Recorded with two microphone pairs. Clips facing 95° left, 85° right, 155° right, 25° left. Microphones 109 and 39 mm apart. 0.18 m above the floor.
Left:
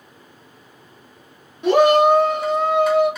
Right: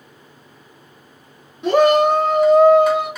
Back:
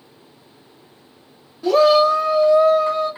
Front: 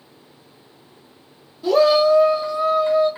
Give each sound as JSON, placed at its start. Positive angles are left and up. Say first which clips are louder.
{"t": 1.6, "sound": "a shout", "louder": "even, back 1 dB", "azimuth_deg": -160, "distance_m": 1.6}